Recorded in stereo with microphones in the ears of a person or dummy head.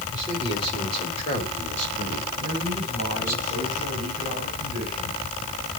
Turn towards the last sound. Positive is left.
turn(degrees=-30)  # may be behind; listen again after turning